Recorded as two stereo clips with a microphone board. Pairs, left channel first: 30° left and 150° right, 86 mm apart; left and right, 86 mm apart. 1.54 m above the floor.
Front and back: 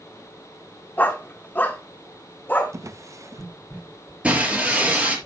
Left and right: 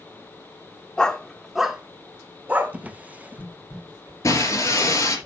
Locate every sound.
1.0 s a dog barking: 30° left, 1.1 m; by 2.8 s 30° right, 1.6 m
2.7 s a drawer: 150° right, 0.8 m
4.2 s breaking glass: 135° left, 4 m